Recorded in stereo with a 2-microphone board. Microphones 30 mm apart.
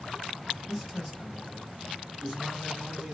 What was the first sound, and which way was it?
A man speaking, 10° left (ahead or behind).